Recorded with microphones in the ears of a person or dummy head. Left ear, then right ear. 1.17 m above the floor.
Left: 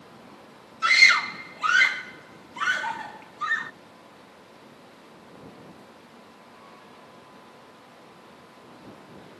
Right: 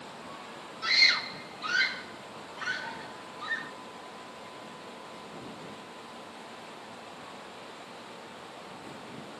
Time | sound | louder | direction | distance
0.8 | a scream | left 7 dB | 45° left (ahead or behind) | ?